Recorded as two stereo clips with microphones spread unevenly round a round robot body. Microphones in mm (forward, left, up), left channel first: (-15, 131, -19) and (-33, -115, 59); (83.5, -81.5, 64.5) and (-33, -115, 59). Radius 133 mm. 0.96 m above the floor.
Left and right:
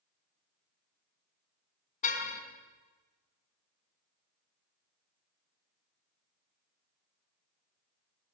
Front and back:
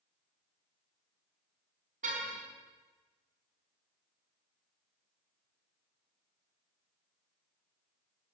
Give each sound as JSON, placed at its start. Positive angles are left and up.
{"t": 2.0, "sound": "a car horn", "azimuth_deg": 150, "distance_m": 4.5}